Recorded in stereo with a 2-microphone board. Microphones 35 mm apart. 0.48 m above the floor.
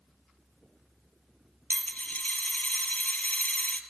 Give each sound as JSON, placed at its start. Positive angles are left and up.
{"t": 1.7, "sound": "a dropped coin", "side_deg": 50, "distance_m": 0.6}